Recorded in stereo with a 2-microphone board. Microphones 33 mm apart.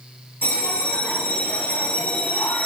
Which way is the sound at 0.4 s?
75° left (ahead or behind).